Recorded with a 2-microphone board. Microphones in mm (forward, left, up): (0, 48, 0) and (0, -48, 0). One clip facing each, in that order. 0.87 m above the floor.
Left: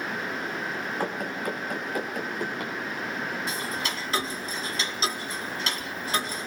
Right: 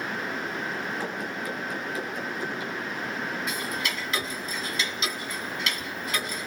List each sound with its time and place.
1.0 s running footsteps: 50° left (ahead or behind), 5 m; by 2.7 s 60° left (ahead or behind), 5 m
3.5 s ticking: 35° left (ahead or behind), 2 m